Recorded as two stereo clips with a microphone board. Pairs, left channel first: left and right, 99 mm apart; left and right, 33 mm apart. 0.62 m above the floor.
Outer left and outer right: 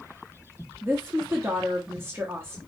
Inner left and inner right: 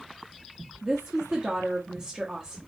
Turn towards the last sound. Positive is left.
turn(degrees=-25)  # may be behind; listen again after turning